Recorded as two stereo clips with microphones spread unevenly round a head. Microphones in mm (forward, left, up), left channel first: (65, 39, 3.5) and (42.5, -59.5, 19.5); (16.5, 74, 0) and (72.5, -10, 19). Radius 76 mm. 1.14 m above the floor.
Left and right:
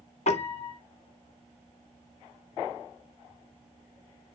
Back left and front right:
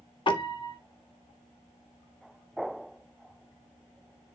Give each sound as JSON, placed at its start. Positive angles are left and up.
{"t": 0.3, "sound": "a piano", "azimuth_deg": 85, "distance_m": 2.0}